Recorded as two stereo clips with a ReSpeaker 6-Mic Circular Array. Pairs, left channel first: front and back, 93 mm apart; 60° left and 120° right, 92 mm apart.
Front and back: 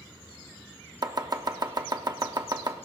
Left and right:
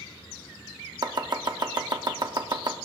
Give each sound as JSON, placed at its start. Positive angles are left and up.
{"t": 1.0, "sound": "chopping", "azimuth_deg": -145, "distance_m": 0.8}